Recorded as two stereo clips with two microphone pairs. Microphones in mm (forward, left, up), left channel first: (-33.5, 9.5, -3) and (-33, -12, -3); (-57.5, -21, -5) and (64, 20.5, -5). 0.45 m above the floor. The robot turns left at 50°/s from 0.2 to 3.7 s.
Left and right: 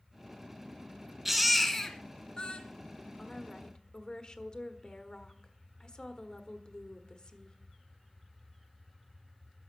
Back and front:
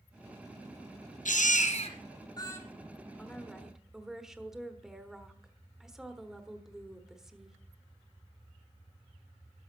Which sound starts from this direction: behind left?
A woman speaking, at 3.2 s.